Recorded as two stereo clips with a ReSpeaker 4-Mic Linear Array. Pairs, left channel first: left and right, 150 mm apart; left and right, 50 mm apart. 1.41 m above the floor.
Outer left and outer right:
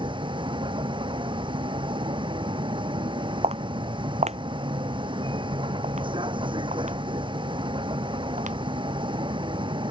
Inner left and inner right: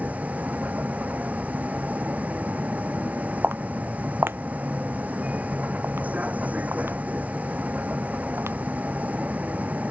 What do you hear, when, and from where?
0.0 s a vehicle: 35° right (ahead or behind)
3.4 s footsteps: 45° right (ahead or behind); by 8.5 s 55° right (ahead or behind)